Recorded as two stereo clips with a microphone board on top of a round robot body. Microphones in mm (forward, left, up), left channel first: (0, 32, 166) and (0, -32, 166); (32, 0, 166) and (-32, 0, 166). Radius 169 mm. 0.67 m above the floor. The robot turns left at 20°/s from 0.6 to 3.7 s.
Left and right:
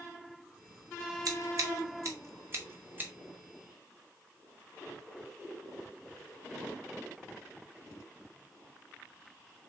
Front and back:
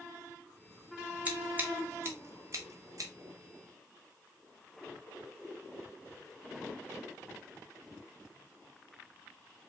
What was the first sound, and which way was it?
Scissors, 115° right.